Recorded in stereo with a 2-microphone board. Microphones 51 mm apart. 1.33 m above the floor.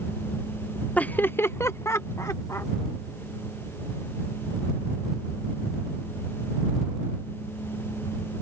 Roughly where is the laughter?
Left.